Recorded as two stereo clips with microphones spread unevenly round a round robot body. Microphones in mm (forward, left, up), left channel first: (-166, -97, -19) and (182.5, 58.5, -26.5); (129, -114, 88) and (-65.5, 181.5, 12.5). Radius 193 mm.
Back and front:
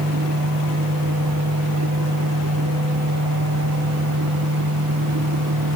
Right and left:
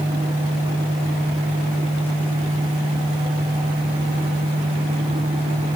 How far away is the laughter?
I don't hear laughter.